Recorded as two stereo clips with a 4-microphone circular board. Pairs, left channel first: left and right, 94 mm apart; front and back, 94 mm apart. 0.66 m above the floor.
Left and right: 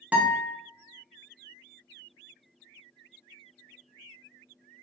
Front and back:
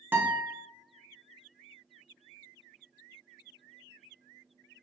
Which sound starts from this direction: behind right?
A guitar, at 0.1 s.